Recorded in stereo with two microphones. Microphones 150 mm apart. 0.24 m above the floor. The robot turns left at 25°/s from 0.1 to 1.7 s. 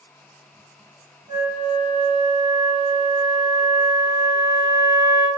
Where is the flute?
30° right (ahead or behind), 2.0 m; by 5.3 s 35° right (ahead or behind), 2.0 m.